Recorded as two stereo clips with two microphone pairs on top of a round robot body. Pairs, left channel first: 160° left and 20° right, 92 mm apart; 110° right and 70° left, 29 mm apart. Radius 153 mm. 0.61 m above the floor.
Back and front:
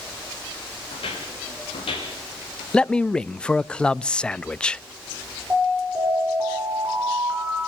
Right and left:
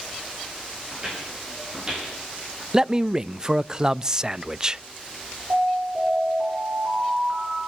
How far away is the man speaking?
About 0.6 m.